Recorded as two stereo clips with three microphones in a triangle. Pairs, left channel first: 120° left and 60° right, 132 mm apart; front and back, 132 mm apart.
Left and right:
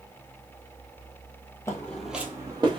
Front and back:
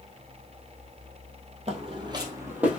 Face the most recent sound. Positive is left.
turn(degrees=-100)